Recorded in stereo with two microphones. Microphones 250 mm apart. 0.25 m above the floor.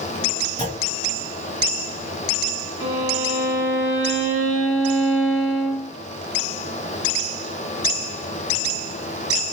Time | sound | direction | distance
0.6 | a clunk | 30° right (ahead or behind) | 2.0 m
2.8 | a violin | 50° right (ahead or behind) | 2.5 m